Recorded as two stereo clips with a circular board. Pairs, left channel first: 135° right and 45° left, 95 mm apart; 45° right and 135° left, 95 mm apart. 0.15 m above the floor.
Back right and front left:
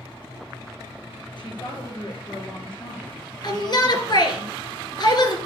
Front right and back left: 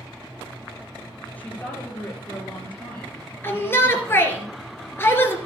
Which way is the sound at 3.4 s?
105° right.